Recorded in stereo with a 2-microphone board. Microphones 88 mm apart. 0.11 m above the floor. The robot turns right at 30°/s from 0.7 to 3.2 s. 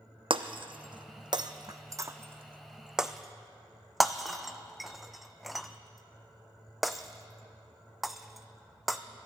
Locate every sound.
0.3 s breaking glass: 75° right (ahead or behind), 0.6 m; by 9.0 s centre (ahead or behind), 0.6 m